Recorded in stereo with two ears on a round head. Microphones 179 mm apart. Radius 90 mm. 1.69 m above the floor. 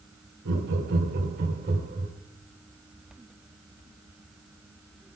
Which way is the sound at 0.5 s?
65° right (ahead or behind).